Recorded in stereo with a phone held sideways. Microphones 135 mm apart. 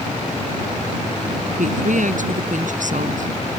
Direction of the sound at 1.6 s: 70° right (ahead or behind).